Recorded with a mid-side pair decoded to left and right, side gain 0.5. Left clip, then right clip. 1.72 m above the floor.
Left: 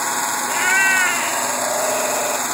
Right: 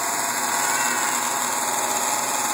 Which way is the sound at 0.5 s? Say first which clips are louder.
Left 9 dB; 65° left.